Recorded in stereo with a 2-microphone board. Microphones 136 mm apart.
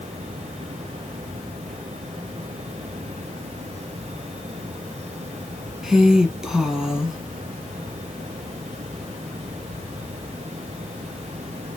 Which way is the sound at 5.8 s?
5° right (ahead or behind).